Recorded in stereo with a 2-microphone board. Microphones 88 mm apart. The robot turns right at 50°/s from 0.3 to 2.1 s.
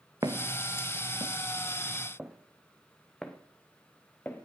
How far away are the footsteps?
About 1.4 m.